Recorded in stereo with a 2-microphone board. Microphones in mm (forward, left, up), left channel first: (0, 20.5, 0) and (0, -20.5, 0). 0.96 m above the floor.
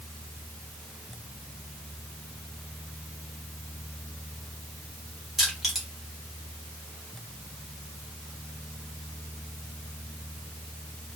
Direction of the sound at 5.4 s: 5° right (ahead or behind).